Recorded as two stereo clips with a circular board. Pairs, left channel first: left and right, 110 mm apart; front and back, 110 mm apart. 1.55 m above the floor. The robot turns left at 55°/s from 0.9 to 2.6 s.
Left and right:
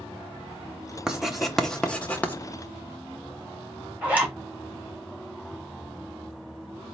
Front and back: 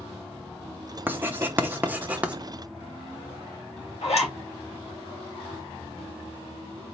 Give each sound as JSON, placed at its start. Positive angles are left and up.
{"t": 1.1, "sound": "writing", "azimuth_deg": -160, "distance_m": 0.6}
{"t": 4.0, "sound": "a zipper", "azimuth_deg": -15, "distance_m": 2.0}